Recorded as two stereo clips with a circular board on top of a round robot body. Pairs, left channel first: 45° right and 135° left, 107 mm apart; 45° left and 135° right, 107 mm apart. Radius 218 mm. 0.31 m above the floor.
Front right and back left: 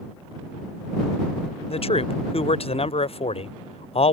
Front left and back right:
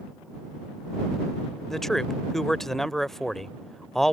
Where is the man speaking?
45° right.